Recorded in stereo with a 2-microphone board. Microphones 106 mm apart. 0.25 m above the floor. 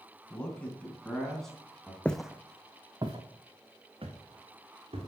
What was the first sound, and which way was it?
A man speaking, 15° left (ahead or behind).